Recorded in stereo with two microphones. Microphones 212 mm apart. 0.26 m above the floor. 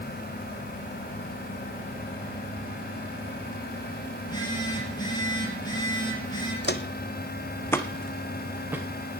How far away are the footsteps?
About 0.8 m.